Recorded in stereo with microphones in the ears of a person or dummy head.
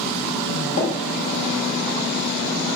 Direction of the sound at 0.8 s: 60° left (ahead or behind).